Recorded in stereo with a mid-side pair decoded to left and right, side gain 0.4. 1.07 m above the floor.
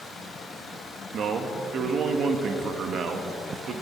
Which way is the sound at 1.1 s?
65° right.